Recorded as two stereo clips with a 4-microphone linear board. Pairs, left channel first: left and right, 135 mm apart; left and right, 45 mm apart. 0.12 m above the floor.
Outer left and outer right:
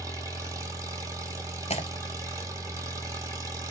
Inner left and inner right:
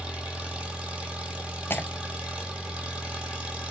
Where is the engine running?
25° right (ahead or behind), 1.0 m.